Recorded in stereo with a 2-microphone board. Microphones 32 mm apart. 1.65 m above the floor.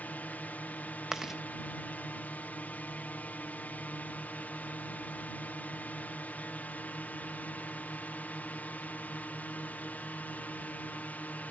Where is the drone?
60° left (ahead or behind).